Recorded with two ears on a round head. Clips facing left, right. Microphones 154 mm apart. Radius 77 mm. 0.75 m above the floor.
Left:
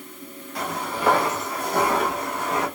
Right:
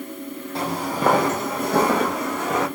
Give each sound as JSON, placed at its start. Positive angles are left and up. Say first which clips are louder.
{"t": 0.6, "sound": "footsteps", "louder": "right 3 dB", "side_deg": -25, "distance_m": 1.1}